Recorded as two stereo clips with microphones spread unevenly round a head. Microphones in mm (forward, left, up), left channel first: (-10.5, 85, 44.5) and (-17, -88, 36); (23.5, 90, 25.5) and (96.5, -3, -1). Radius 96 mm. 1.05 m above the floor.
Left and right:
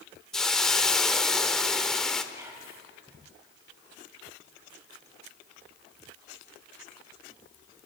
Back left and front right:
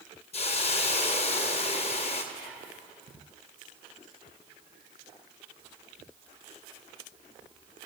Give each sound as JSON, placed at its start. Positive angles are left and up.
{"t": 0.3, "sound": "a hiss", "azimuth_deg": 175, "distance_m": 1.3}
{"t": 2.3, "sound": "whispering", "azimuth_deg": -170, "distance_m": 7.0}